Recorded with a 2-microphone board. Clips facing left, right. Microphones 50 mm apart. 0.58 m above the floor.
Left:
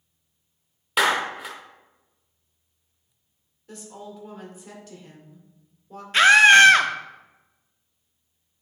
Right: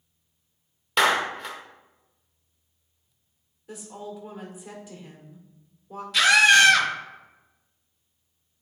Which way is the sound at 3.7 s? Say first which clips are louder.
Right 2 dB; 10° right (ahead or behind).